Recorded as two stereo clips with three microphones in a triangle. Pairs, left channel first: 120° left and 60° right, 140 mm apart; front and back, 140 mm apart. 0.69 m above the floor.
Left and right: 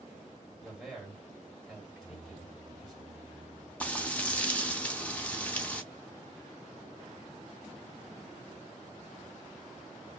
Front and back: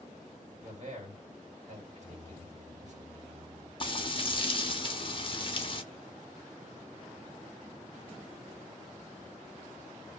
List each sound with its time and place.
0.6 s a man speaking: 155° right, 1.8 m
1.9 s singing: 140° right, 1.6 m
3.8 s frying: 40° left, 0.7 m